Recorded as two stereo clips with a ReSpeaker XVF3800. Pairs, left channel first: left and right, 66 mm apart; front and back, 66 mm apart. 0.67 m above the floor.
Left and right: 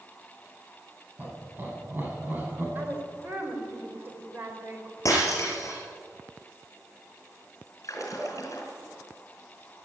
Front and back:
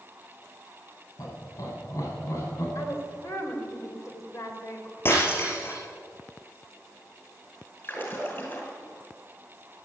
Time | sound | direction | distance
1.2 | laughter | 30° right | 6 m
2.8 | a woman speaking | 35° right | 3 m
5.0 | breaking glass | 55° left | 5 m
7.8 | a splash | 55° left | 4 m